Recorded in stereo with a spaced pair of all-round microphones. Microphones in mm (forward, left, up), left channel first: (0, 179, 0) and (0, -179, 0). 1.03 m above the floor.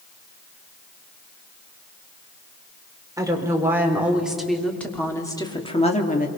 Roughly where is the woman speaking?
Centre.